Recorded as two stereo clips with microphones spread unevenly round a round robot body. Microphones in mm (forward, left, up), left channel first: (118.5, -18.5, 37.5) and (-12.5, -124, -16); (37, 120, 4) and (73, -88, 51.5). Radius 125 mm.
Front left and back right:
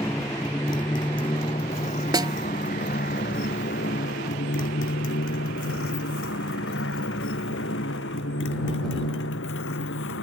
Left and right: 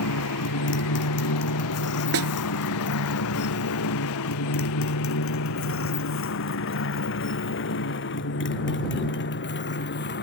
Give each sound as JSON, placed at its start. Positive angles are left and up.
{"t": 0.0, "sound": "a motorcycle", "azimuth_deg": 115}
{"t": 2.1, "sound": "a snare drum", "azimuth_deg": -70}